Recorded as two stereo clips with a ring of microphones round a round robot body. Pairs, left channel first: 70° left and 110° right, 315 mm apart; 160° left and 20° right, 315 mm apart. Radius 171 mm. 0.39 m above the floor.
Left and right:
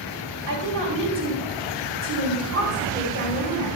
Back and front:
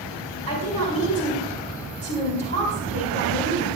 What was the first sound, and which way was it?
A woman speaking, 135° right.